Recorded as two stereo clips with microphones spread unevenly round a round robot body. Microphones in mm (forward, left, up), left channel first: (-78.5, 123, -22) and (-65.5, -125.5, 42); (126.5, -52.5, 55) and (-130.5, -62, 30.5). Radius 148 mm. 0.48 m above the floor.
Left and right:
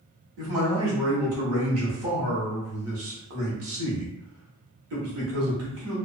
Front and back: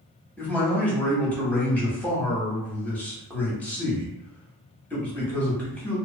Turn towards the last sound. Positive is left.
turn(degrees=-85)